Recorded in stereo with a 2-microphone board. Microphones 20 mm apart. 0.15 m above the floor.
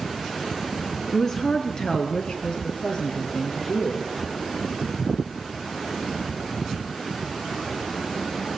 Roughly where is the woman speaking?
Centre.